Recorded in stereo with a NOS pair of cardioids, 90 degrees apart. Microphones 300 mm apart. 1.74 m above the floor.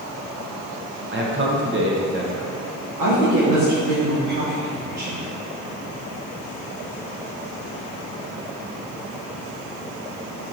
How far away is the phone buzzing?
I don't hear a phone buzzing.